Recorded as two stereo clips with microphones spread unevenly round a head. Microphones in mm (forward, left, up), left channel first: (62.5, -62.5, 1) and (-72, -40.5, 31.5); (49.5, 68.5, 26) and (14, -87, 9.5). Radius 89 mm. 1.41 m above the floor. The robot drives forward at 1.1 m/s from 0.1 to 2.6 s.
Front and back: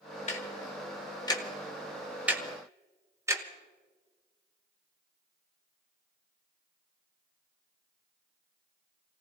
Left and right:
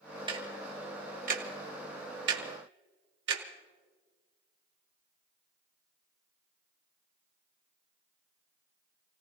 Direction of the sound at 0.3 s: 45° right.